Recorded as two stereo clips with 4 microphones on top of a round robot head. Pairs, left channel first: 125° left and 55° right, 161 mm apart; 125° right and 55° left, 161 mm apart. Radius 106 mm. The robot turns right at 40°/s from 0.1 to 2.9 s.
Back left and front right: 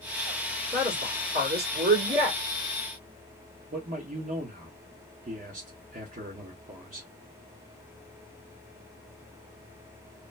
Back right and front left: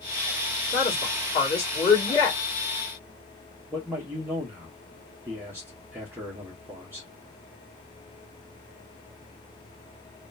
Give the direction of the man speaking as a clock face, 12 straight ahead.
1 o'clock.